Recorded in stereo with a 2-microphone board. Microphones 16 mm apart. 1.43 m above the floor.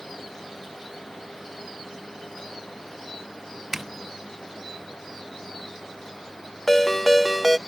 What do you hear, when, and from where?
3.7 s a zipper: 20° right (ahead or behind)
6.7 s a ringtone: 10° left (ahead or behind)